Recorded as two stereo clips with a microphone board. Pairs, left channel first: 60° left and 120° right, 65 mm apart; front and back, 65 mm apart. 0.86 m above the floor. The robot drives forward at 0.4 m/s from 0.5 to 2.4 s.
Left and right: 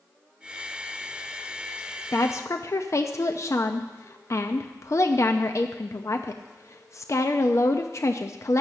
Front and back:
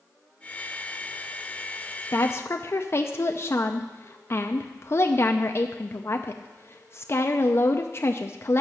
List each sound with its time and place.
2.1 s a woman speaking: 30° left, 0.7 m; by 8.6 s 35° left, 0.6 m